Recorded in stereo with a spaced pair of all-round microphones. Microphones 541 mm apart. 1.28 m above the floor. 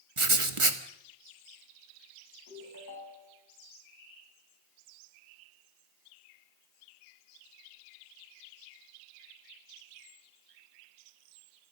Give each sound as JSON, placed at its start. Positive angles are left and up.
{"t": 0.2, "sound": "writing", "side_deg": -70, "distance_m": 1.6}
{"t": 2.5, "sound": "a ringtone", "side_deg": -35, "distance_m": 6.5}